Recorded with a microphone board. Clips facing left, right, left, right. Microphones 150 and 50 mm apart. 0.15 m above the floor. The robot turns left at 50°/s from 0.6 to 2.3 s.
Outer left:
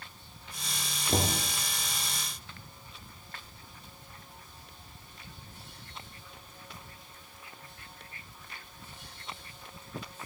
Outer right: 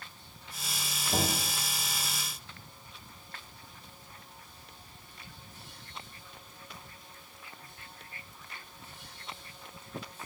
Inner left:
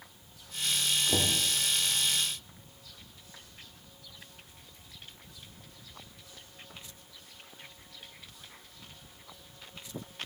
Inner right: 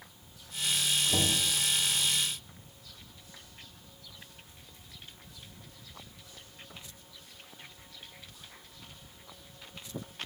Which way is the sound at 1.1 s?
70° left (ahead or behind).